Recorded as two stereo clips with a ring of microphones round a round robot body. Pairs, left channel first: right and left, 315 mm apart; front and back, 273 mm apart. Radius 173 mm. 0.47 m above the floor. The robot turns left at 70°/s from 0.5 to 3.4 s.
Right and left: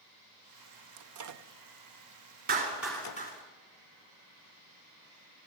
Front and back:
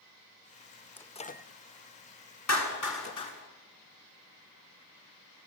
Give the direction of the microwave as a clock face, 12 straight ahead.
9 o'clock.